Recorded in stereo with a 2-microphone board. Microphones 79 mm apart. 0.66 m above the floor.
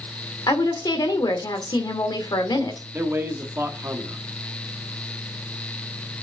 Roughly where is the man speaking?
Right.